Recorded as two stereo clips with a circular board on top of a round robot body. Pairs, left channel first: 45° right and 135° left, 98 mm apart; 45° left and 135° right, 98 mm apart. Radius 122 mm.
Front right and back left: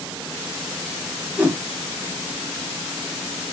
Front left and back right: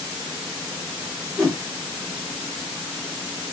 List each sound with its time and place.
1.4 s a whoosh: 165° right, 1.3 m